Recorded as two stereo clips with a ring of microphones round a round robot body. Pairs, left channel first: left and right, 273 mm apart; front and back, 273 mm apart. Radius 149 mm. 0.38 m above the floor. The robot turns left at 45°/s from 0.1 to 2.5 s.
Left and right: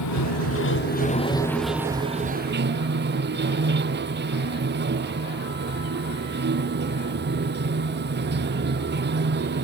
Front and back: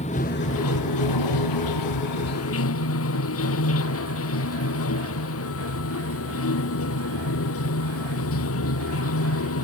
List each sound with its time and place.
0.0 s running water: 70° left; by 9.6 s 40° right